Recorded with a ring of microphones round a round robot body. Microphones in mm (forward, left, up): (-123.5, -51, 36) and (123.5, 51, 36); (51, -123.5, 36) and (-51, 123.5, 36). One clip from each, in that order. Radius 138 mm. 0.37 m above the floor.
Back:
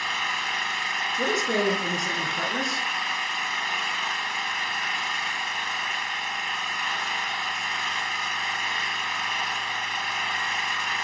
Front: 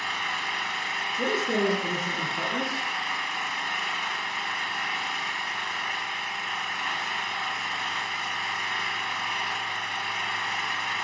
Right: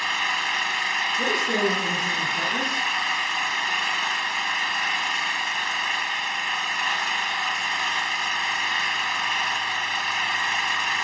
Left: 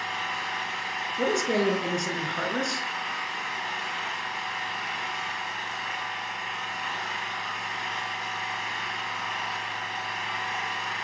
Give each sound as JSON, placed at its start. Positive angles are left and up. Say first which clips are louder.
{"t": 0.0, "sound": "an engine running", "louder": "back 2 dB, right 6 dB", "azimuth_deg": -90, "distance_m": 3.0}
{"t": 1.2, "sound": "a man speaking", "louder": "back 1 dB, right 3 dB", "azimuth_deg": 175, "distance_m": 5.5}